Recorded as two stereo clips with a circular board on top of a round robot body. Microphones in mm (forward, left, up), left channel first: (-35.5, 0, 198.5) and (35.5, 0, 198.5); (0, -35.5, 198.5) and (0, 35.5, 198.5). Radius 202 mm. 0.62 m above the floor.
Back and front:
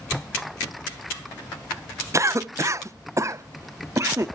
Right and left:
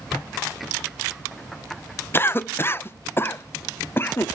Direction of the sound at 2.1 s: 35° right.